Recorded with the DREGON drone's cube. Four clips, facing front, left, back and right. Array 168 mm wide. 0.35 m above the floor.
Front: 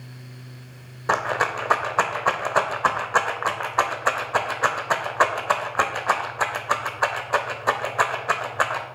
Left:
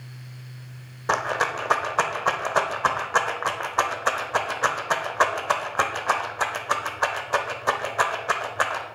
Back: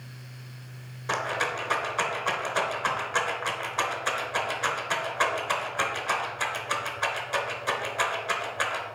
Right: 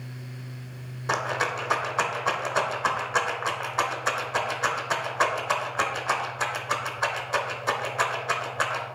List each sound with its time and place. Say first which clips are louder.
1.1 s a rattle: left 3 dB, front 6 dB; 30° left, 0.9 m